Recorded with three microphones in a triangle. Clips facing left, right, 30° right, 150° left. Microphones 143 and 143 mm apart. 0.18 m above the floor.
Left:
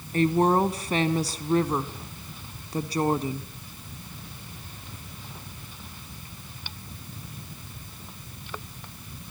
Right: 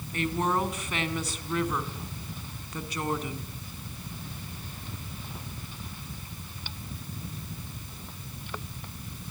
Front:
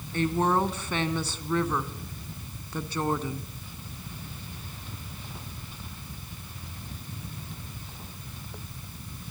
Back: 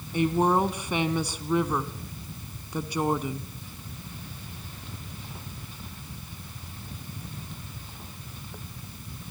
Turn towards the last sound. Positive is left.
turn(degrees=85)